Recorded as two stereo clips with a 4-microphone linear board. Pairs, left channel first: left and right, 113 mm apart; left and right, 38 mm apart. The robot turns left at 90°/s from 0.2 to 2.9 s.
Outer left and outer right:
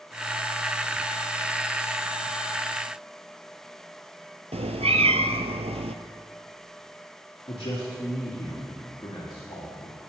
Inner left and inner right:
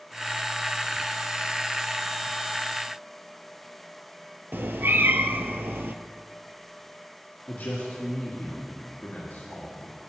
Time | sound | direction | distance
4.5 | a cat meowing | 85° right | 0.8 m
7.5 | a man speaking | 55° left (ahead or behind) | 4 m